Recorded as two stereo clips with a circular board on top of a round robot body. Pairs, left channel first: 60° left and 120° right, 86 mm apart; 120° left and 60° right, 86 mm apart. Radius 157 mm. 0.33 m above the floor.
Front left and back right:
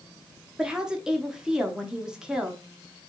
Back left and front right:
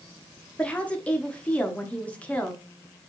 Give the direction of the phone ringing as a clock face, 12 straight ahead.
No phone ringing in this recording.